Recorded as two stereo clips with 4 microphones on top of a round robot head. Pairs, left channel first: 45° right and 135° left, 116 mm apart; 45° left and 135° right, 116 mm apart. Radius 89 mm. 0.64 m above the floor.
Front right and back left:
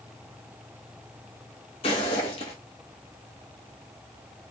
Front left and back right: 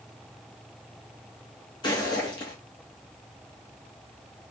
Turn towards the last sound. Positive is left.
turn(degrees=-5)